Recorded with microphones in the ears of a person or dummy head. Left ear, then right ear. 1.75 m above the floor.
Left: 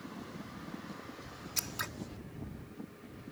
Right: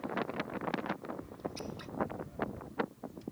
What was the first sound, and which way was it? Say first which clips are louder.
Scissors: left 6 dB; 60° left (ahead or behind).